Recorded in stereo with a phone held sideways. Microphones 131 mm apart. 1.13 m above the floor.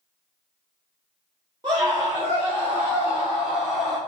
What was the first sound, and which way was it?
A scream, 40° right (ahead or behind).